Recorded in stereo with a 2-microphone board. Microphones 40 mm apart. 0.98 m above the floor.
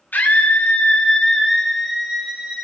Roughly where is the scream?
Left.